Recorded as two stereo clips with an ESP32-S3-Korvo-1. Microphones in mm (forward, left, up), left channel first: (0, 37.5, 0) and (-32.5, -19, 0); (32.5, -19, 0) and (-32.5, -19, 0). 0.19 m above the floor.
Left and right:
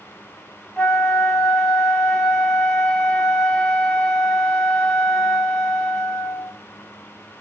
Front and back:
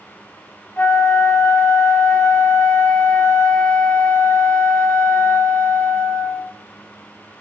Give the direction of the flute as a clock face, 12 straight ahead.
12 o'clock.